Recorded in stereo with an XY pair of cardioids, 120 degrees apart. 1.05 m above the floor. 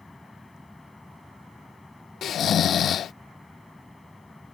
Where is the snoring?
55° left.